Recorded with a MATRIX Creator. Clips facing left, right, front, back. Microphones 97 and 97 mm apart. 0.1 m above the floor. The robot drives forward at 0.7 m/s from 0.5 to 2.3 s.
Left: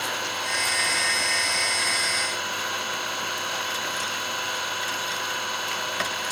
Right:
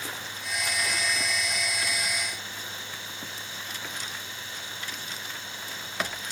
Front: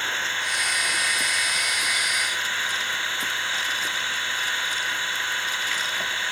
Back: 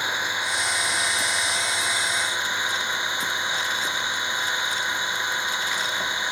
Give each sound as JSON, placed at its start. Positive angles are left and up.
{"t": 0.0, "sound": "an engine running", "azimuth_deg": 105}